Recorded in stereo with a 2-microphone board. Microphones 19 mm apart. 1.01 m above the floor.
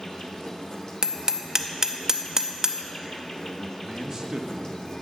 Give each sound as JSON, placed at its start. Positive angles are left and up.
{"t": 0.0, "sound": "an insect", "side_deg": 40, "distance_m": 0.8}
{"t": 1.0, "sound": "hammering", "side_deg": -30, "distance_m": 0.5}
{"t": 3.8, "sound": "a man speaking", "side_deg": -30, "distance_m": 0.8}